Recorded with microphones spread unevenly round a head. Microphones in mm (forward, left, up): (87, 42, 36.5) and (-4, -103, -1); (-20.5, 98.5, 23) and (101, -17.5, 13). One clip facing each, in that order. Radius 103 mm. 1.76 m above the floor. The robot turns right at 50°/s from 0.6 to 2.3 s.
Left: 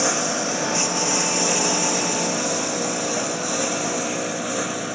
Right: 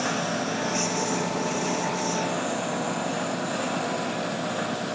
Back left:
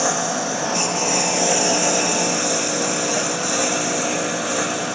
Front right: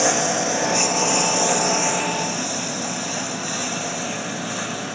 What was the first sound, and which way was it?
A lawn mower, 25° left.